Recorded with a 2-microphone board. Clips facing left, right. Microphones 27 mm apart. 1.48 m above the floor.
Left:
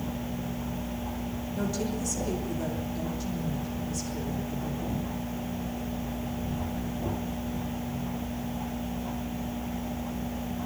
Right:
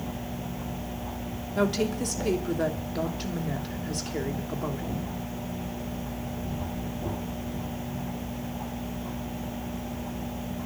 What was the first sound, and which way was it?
A woman speaking, 60° right (ahead or behind).